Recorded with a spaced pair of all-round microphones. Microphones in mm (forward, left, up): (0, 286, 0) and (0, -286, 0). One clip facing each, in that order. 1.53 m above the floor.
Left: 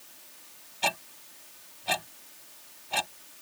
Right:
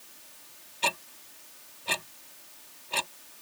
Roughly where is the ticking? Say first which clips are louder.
Left 1 dB; centre.